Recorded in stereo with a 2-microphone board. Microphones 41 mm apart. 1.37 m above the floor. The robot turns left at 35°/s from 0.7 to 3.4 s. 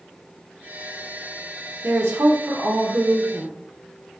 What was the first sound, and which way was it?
A woman speaking, 80° right.